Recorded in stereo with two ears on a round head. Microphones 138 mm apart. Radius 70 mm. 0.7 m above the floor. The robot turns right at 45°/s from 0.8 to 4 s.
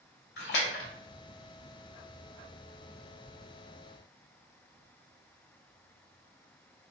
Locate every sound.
0.4 s a splash: 75° left (ahead or behind), 1.7 m; by 0.9 s 80° left, 1.7 m